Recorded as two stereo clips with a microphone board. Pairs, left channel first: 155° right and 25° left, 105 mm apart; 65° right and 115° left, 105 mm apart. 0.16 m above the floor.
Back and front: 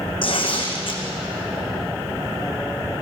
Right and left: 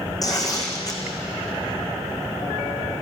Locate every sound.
0.2 s tearing paper: 120° right, 4 m